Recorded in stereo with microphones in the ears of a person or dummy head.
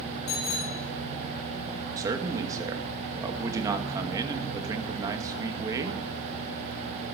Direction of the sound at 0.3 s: 40° left (ahead or behind).